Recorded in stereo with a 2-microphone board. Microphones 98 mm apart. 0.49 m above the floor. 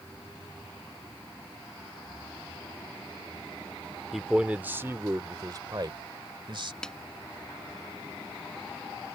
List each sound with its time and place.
4.1 s a man speaking: centre (ahead or behind); by 6.7 s 55° right (ahead or behind)
6.8 s a snare drum: 5° left (ahead or behind)